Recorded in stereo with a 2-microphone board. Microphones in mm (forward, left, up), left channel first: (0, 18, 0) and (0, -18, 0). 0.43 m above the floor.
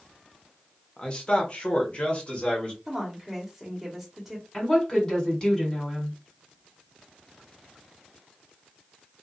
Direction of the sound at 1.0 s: 30° left (ahead or behind).